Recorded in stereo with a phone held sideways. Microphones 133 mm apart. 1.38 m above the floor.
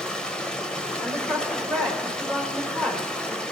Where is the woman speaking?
5° left (ahead or behind), 3.5 m.